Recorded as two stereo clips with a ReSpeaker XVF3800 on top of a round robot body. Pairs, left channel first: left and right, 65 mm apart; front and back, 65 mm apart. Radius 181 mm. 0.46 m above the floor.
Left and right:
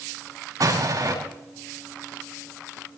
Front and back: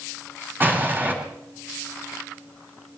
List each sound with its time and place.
0.6 s an explosion: 120° right, 7.5 m